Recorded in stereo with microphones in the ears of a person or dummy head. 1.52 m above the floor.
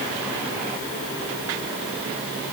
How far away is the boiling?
No boiling in this recording.